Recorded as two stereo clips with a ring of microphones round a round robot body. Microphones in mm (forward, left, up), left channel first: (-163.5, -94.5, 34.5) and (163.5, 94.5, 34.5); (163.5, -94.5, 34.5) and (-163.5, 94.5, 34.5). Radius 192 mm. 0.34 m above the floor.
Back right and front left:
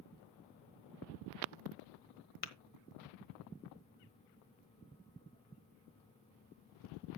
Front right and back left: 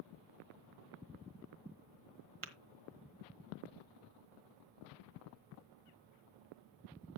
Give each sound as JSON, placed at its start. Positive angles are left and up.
{"t": 2.4, "sound": "tapping", "azimuth_deg": -155, "distance_m": 1.2}